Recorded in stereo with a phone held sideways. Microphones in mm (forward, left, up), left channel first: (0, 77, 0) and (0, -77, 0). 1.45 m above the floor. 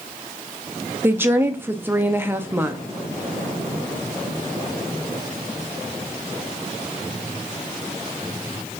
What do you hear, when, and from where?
1.0 s a woman speaking: 15° right (ahead or behind), 0.7 m